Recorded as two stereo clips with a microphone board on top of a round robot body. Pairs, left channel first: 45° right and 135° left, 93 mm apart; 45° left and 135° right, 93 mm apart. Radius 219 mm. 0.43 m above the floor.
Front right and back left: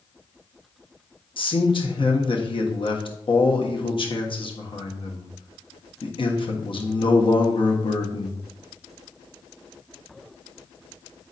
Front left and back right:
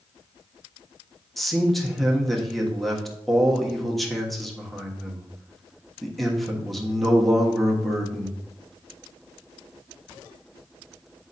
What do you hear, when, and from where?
1.4 s a man speaking: 45° right, 1.4 m